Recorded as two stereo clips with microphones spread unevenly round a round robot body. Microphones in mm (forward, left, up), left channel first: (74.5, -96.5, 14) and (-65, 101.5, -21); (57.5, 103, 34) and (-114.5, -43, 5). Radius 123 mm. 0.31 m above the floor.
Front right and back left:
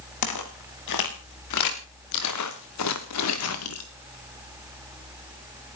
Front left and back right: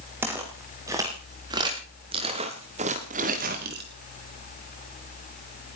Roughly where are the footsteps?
Ahead right.